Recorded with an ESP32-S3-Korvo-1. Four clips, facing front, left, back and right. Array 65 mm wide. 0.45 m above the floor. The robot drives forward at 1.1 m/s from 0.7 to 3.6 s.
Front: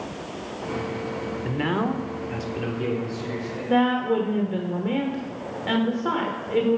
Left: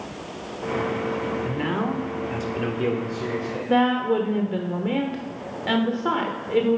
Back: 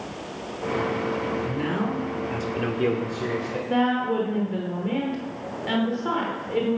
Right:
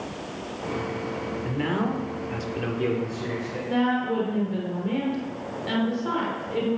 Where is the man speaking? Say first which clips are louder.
Left 1 dB, front 1 dB; 10° left, 1.4 m; by 3.6 s 175° left, 1.7 m.